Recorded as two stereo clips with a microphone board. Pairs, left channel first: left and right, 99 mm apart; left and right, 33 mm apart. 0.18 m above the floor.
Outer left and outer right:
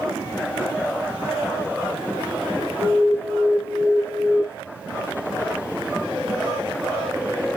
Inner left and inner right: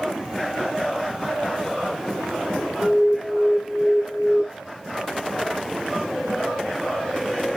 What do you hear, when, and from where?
2.8 s an alarm: 25° right (ahead or behind), 2.5 m